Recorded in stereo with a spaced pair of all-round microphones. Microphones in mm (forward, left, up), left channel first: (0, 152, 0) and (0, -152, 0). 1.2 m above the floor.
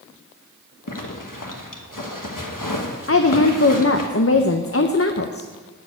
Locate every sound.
0.9 s a zipper: 80° left, 1.2 m
3.1 s a woman speaking: 45° left (ahead or behind), 0.6 m